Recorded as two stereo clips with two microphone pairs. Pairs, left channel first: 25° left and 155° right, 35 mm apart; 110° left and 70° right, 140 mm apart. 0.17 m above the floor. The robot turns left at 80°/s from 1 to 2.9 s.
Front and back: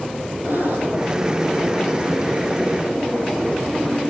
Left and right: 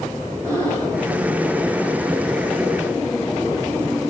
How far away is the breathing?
About 7.5 m.